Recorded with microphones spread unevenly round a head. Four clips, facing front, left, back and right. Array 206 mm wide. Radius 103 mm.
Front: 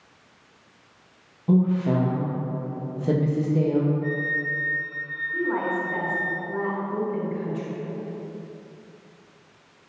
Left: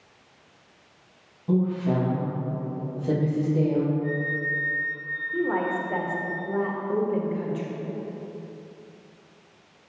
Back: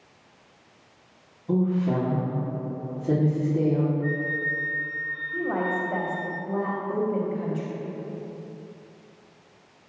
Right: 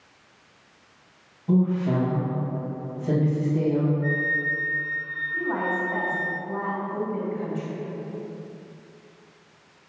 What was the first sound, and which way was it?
A woman speaking, 5° left.